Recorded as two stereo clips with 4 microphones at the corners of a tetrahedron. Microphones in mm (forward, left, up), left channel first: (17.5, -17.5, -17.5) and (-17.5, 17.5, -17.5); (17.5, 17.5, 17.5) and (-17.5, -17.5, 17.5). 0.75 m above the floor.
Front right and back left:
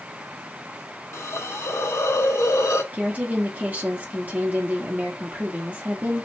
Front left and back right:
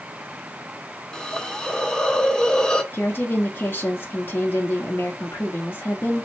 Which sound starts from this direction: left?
A woman speaking, at 2.9 s.